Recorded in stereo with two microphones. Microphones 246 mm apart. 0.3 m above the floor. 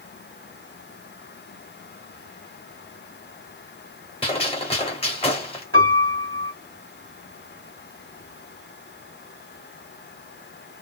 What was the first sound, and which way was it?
A gunshot, 25° left (ahead or behind).